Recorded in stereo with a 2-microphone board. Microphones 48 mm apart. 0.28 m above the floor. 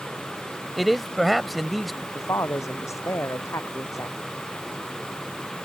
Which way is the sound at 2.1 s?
85° left.